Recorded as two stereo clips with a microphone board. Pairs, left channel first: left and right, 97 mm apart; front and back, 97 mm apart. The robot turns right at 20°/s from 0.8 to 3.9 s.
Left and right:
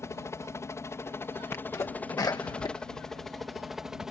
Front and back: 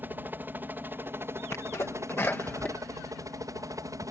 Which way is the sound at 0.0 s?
125° left.